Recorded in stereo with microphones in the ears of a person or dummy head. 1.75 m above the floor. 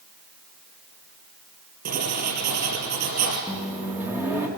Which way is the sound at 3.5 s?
10° right (ahead or behind).